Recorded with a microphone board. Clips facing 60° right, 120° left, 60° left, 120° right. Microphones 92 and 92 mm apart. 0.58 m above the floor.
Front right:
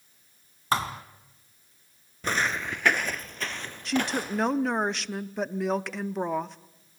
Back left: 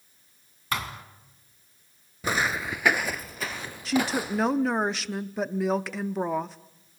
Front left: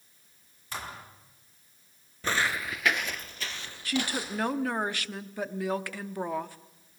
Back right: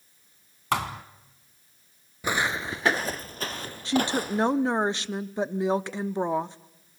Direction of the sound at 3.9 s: 155° right.